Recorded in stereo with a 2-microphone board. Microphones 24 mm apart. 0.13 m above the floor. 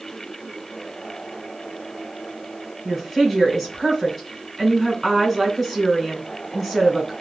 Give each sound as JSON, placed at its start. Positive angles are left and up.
{"t": 2.9, "sound": "a woman speaking", "side_deg": -10, "distance_m": 1.4}